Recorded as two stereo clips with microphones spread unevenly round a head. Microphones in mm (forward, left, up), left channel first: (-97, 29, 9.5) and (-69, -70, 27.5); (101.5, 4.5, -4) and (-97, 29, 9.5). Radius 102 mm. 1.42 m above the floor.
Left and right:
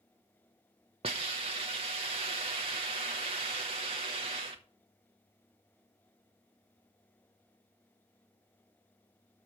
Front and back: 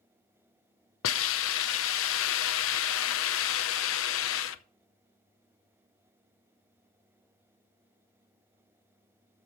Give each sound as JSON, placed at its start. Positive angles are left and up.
{"t": 1.0, "sound": "a hiss", "azimuth_deg": -30, "distance_m": 0.6}